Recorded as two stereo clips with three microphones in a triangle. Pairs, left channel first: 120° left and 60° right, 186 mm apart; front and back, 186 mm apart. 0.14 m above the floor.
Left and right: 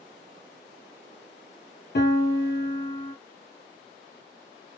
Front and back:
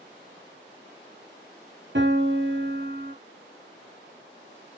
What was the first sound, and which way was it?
A piano, 155° left.